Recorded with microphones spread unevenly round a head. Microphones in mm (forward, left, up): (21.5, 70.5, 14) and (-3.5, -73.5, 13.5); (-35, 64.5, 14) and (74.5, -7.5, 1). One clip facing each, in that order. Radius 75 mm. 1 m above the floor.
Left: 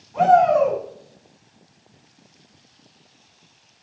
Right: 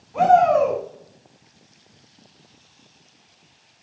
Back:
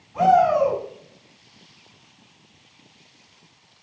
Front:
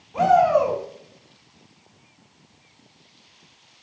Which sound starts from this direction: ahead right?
A shout, at 0.1 s.